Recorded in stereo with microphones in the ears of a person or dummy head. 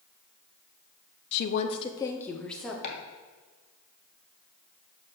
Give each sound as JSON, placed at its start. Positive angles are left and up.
{"t": 1.3, "sound": "a woman speaking", "side_deg": 60, "distance_m": 0.5}
{"t": 2.8, "sound": "chopping", "side_deg": 40, "distance_m": 1.7}